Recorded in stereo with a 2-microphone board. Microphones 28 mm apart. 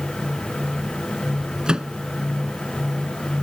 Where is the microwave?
30° right (ahead or behind).